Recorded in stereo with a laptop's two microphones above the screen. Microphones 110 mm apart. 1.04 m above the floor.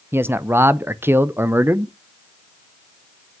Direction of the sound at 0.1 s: 20° right (ahead or behind).